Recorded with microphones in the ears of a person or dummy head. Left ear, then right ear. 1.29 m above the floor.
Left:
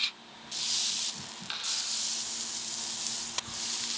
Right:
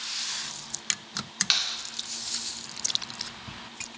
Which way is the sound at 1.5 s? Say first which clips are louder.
Right 8 dB; 55° right (ahead or behind).